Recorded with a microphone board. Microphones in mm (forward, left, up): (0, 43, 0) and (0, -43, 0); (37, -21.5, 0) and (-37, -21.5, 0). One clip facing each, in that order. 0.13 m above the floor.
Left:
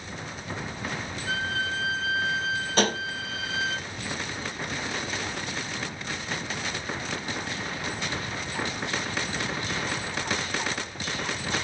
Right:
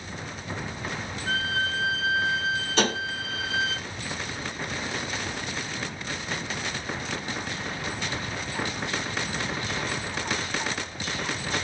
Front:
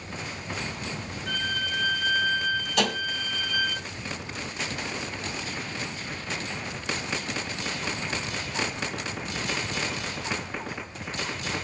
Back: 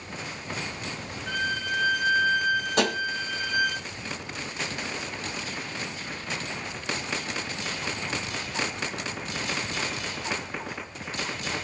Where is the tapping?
130° left, 2 m.